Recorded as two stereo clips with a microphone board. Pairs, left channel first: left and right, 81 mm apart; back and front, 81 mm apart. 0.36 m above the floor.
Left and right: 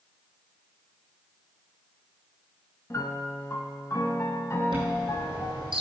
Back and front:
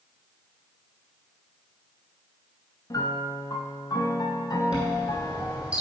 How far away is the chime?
About 2.5 m.